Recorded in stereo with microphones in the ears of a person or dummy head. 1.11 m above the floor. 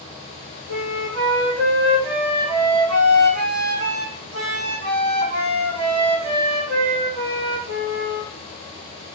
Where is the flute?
80° right, 1.6 m.